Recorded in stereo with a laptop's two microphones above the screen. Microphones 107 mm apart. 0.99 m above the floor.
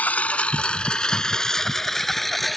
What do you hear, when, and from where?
0.0 s a lawn mower: 15° left (ahead or behind); by 2.6 s centre (ahead or behind)